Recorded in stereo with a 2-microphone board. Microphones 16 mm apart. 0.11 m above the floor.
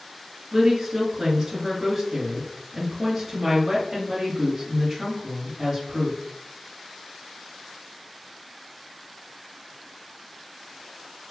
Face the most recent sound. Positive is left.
turn(degrees=-35)  # may be behind; listen again after turning